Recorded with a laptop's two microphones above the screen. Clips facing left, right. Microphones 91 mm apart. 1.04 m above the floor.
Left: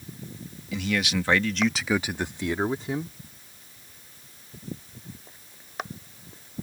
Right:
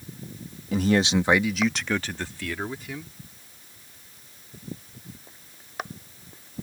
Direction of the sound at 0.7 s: 45° right (ahead or behind).